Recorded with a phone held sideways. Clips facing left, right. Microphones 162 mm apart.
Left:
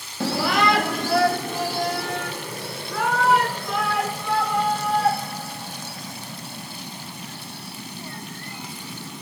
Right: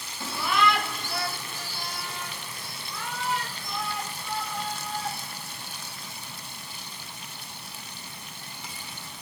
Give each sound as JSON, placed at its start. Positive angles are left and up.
{"t": 0.2, "sound": "a shout", "side_deg": 80}